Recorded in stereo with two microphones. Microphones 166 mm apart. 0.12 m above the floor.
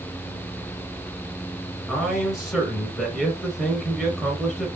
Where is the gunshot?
I don't hear a gunshot.